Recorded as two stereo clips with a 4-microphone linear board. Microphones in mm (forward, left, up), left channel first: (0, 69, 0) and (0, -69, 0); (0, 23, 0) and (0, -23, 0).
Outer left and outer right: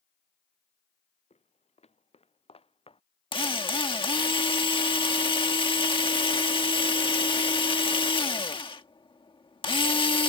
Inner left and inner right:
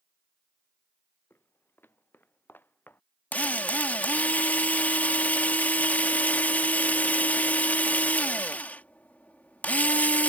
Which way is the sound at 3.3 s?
40° left (ahead or behind).